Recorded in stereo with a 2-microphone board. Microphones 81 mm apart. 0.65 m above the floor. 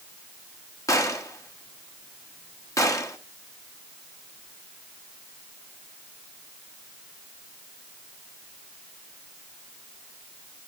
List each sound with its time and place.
0.9 s a gunshot: 40° left (ahead or behind), 1.3 m